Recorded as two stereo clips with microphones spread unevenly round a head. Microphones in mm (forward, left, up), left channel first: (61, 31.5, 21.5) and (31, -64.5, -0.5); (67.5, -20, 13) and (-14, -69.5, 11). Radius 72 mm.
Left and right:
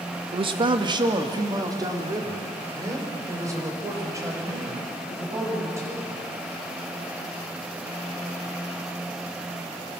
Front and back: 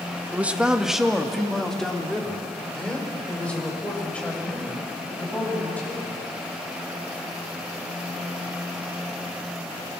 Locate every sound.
0.3 s a man speaking: 75° right, 1.4 m; by 6.2 s 45° right, 8.5 m